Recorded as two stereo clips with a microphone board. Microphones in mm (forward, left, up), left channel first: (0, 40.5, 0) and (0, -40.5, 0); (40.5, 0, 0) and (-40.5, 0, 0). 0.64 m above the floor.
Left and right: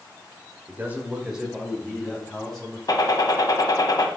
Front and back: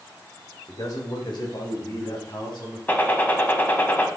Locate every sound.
0.7 s a man speaking: 30° right, 2.0 m; by 2.8 s 10° left, 4.5 m
2.9 s a gunshot: 65° left, 1.3 m